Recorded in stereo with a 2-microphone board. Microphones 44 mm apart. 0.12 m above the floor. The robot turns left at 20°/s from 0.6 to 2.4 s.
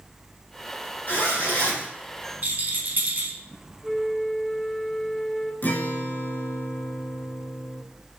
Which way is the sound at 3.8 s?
10° left (ahead or behind).